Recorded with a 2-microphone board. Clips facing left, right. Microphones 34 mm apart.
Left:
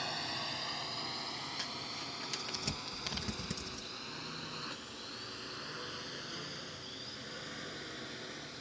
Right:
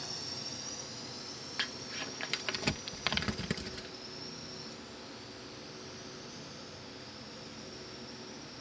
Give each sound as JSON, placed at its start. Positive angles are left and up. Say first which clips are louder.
{"t": 0.0, "sound": "a drone", "louder": "left 5 dB", "side_deg": 40}
{"t": 1.6, "sound": "crumpling", "louder": "right 3 dB", "side_deg": -40}